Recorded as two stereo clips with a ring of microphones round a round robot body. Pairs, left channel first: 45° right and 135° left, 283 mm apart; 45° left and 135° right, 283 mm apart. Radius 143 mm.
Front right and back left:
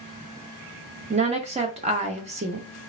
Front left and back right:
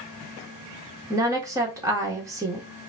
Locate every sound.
1.1 s a woman speaking: 165° left, 0.7 m